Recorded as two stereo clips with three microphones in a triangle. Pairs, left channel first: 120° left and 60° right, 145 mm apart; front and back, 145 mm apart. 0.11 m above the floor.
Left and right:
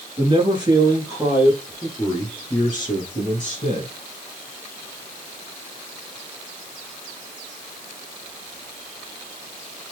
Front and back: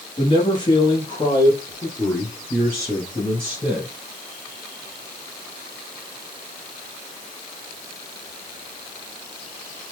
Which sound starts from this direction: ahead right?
A man speaking, at 0.2 s.